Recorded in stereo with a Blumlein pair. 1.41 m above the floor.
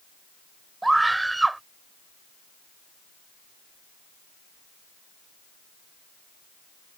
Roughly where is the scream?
Ahead.